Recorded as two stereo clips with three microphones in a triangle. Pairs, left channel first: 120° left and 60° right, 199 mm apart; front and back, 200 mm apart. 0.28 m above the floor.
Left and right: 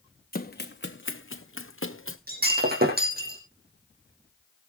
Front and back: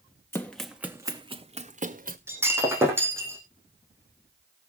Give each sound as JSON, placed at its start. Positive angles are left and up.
{"t": 0.3, "sound": "running footsteps", "azimuth_deg": 80, "distance_m": 0.9}
{"t": 2.3, "sound": "breaking glass", "azimuth_deg": -100, "distance_m": 3.0}